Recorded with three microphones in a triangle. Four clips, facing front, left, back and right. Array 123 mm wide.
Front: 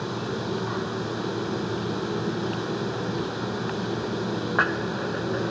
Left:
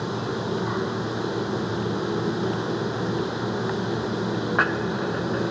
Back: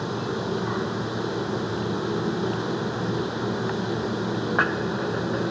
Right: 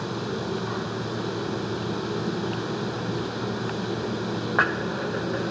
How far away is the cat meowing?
I don't hear a cat meowing.